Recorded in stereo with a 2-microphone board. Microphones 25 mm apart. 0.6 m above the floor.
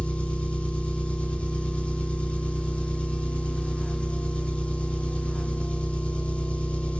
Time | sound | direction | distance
0.0 | an engine running | 60° left (ahead or behind) | 2.5 m